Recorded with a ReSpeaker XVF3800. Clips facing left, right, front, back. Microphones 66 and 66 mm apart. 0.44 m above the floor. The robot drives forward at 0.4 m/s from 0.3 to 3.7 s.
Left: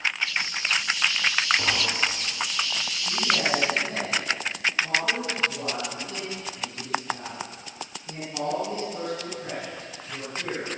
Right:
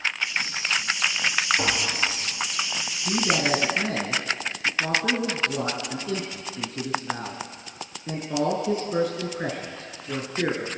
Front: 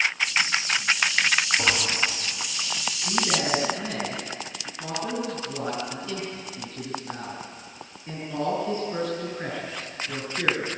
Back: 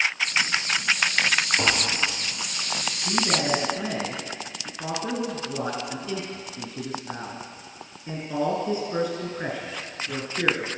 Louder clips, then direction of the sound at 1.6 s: Right 1 dB, back 1 dB; 155° right.